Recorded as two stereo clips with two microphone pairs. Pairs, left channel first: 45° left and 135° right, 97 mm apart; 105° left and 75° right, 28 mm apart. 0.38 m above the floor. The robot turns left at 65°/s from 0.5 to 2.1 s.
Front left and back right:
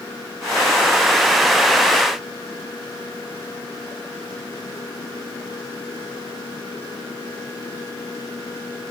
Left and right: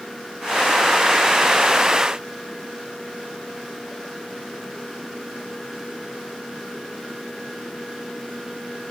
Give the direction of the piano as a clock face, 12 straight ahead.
I don't hear a piano.